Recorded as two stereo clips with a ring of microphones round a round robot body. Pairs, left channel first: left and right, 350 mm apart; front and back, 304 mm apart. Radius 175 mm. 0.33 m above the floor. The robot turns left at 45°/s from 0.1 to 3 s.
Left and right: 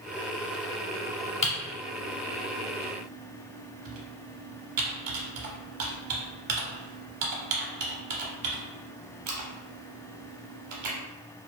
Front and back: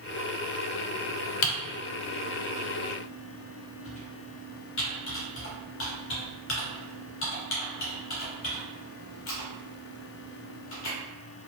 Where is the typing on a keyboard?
20° left, 0.6 m; by 11.0 s 55° right, 0.6 m.